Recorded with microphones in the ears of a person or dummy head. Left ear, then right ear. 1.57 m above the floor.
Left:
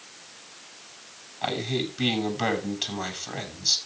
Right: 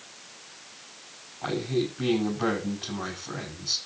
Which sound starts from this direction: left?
A man speaking, at 1.4 s.